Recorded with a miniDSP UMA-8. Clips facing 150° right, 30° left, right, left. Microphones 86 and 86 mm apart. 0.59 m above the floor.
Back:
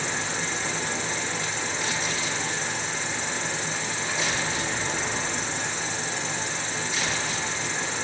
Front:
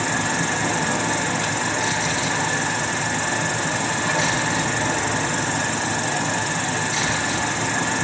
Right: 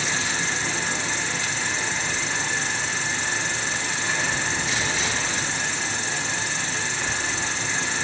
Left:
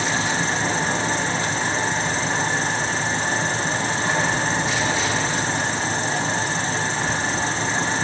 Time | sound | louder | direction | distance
0.0 | an insect | front 7 dB, left 5 dB | 45° left | 1.0 m